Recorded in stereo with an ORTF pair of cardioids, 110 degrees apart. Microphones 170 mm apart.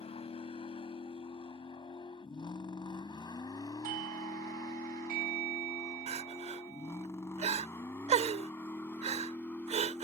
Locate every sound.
0.0 s a vehicle: 35° left; by 10.0 s 10° left
3.8 s a doorbell: 60° right
6.1 s crying: 40° right